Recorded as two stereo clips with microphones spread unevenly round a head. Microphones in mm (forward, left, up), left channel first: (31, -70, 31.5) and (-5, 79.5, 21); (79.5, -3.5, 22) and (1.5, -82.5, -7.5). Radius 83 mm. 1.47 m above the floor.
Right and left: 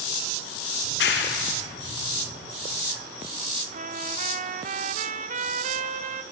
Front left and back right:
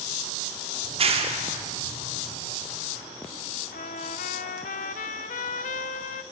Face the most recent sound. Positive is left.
turn(degrees=60)